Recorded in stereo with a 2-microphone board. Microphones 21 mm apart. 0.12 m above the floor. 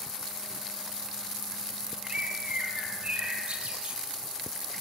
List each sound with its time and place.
2.0 s a bird: 60° right (ahead or behind), 3 m